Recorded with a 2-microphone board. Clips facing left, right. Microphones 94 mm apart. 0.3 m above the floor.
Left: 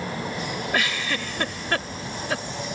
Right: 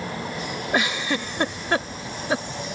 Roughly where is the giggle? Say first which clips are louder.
Right 4 dB; centre.